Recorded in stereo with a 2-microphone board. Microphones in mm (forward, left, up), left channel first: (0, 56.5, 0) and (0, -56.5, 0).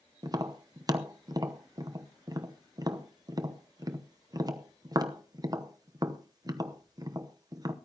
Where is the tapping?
35° right (ahead or behind), 0.9 m.